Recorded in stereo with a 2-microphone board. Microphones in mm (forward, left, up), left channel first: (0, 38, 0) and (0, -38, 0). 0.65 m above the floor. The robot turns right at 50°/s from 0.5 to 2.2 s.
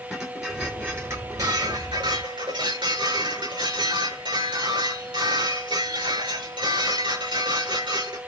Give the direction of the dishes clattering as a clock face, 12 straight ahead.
6 o'clock.